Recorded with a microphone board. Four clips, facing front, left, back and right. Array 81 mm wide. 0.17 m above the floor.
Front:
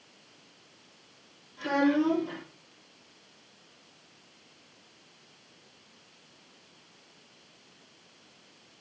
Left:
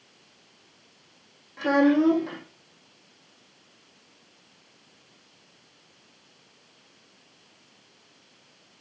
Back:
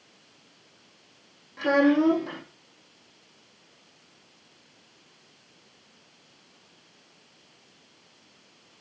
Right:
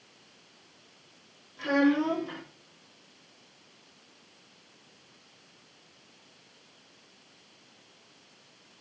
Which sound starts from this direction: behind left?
A child speaking, at 1.6 s.